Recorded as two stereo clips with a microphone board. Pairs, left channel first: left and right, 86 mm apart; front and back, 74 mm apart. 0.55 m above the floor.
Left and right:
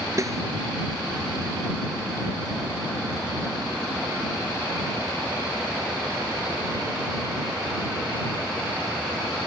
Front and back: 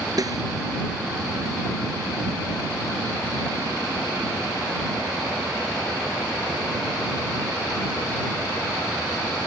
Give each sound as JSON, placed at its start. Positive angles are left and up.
{"t": 0.2, "sound": "a snare drum", "azimuth_deg": -145}